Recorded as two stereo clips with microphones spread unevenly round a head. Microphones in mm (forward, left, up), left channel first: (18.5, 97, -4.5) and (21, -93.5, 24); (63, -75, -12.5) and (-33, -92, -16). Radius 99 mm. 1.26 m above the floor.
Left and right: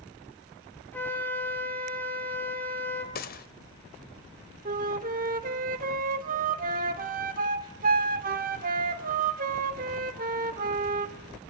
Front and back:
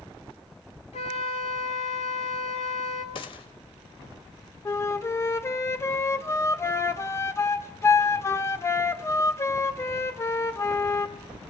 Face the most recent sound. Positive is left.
turn(degrees=-50)